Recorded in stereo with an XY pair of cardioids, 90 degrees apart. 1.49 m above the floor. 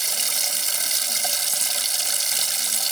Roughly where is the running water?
Ahead.